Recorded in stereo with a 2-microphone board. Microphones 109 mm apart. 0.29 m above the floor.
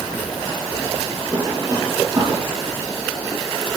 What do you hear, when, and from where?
1.2 s a drawer: 30° right (ahead or behind), 3 m